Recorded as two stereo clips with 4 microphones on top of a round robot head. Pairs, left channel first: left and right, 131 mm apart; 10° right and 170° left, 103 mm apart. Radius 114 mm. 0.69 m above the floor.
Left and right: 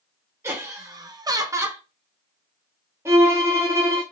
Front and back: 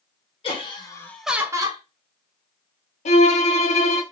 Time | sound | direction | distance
0.4 | laughter | 20° right | 1.5 m
3.0 | a violin | 15° right | 0.6 m